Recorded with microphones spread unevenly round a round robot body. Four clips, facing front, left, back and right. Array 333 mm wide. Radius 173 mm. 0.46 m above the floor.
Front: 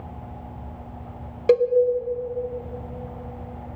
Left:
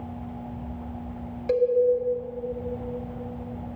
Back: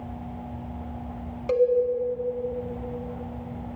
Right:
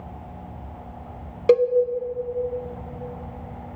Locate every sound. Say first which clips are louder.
1.5 s a cowbell: right 5 dB, front 3 dB; 60° right, 0.7 m